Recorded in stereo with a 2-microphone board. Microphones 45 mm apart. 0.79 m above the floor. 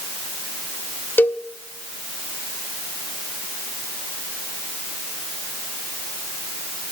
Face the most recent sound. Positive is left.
turn(degrees=50)  # may be behind; listen again after turning